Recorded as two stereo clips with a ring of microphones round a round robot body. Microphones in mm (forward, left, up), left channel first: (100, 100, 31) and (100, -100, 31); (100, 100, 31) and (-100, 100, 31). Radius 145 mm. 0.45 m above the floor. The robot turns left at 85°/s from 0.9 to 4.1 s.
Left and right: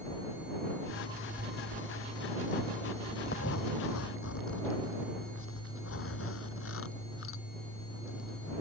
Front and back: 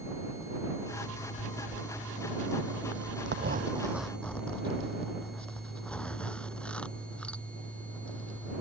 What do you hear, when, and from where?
0.9 s a zipper: 5° right; by 8.6 s 85° left